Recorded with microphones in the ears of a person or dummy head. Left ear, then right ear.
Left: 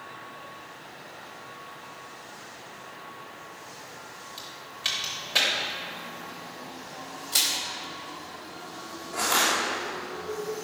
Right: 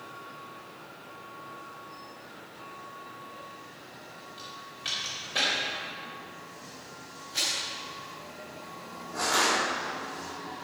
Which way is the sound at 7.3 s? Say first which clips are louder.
Left 4 dB; 70° left (ahead or behind).